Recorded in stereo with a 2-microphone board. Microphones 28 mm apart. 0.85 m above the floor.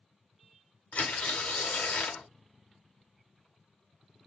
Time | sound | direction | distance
0.9 | tearing paper | 55° left (ahead or behind) | 0.9 m